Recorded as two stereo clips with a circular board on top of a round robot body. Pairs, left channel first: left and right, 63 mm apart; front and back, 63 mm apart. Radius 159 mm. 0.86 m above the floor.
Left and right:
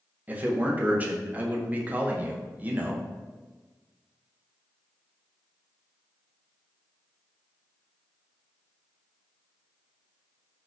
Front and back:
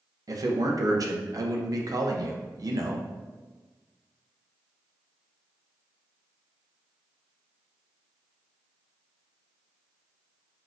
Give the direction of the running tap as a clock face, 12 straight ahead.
I don't hear a running tap.